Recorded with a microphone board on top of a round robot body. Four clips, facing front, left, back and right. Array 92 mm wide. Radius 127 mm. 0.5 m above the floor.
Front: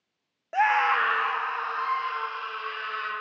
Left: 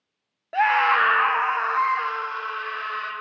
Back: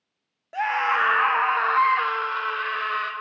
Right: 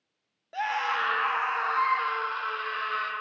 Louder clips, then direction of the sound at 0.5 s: Left 10 dB, front 1 dB; 60° left.